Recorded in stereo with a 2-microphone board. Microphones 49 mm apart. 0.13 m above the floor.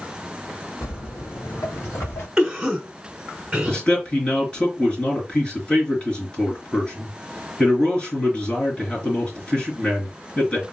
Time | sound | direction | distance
0.8 | footsteps | 65° left (ahead or behind) | 1.5 m
2.4 | a cough | 15° right (ahead or behind) | 1.2 m
3.7 | a man speaking | 25° left (ahead or behind) | 2.5 m